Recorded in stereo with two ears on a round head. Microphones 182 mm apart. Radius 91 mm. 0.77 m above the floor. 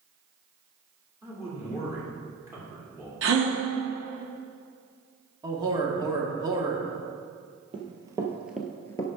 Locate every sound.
1.2 s a man speaking: 15° right (ahead or behind), 3 m
3.2 s a gasp: 60° right (ahead or behind), 1.5 m
5.4 s a man speaking: 20° right (ahead or behind), 1.4 m
7.7 s running footsteps: 25° right (ahead or behind), 1.2 m; by 9.1 s 20° left (ahead or behind), 0.8 m